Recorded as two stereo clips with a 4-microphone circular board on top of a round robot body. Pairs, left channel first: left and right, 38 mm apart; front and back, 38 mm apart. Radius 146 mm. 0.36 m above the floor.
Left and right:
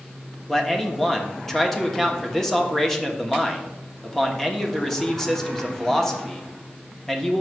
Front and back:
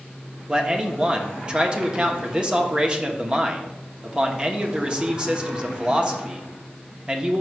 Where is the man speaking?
160° left, 1.3 m.